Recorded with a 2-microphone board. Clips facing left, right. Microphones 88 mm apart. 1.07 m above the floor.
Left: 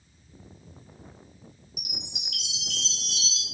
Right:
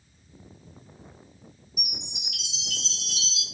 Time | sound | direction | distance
1.8 | a chime | 75° left (ahead or behind) | 2.5 m